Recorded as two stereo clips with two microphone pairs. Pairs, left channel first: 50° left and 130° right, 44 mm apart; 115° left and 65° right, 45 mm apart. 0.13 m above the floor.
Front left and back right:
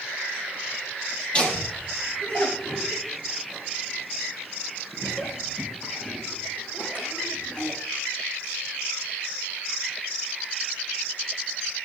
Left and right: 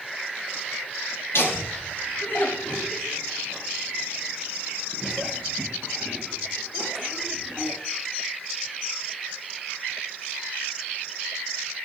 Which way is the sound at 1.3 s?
110° left.